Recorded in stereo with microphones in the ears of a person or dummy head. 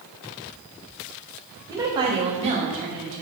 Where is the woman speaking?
20° right (ahead or behind), 1.7 m; by 3.2 s 45° right (ahead or behind), 1.4 m.